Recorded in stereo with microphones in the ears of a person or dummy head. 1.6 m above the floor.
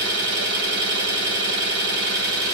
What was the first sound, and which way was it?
An engine running, 55° right (ahead or behind).